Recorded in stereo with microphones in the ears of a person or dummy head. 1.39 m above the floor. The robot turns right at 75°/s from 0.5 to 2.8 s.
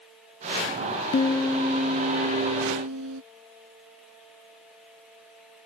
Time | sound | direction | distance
1.1 | a piano | 150° left | ?